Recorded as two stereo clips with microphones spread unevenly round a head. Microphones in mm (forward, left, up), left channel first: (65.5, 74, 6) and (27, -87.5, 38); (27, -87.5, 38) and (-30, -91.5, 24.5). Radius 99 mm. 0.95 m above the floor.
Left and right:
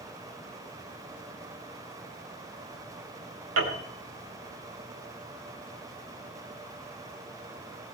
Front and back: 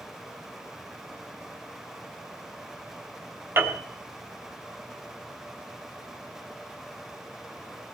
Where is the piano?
130° right, 3.5 m.